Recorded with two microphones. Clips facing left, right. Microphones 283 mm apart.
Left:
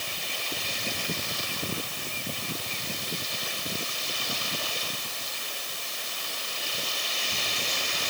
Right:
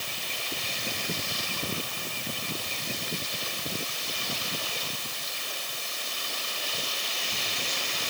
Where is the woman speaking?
No woman speaking in this recording.